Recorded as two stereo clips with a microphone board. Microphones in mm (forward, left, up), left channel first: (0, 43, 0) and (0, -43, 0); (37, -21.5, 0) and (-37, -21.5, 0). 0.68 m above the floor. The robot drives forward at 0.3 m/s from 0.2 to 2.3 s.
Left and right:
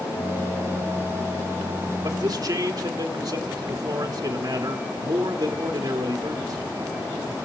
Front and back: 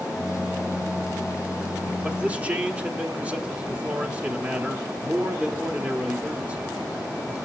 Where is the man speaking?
105° right, 1.2 m; by 6.7 s 110° right, 1.2 m.